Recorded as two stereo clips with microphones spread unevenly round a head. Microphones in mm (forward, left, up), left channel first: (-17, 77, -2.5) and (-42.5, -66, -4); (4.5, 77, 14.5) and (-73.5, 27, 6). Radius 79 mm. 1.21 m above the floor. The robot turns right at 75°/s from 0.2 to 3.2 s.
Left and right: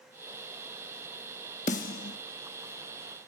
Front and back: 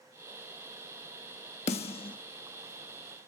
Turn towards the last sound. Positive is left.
turn(degrees=140)